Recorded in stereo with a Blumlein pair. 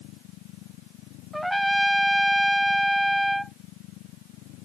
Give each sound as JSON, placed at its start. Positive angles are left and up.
{"t": 0.0, "sound": "a machine running", "azimuth_deg": 40}
{"t": 1.3, "sound": "a trumpet", "azimuth_deg": 0}